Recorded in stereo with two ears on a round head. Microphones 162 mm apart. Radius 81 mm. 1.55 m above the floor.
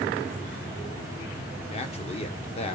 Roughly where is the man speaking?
Left.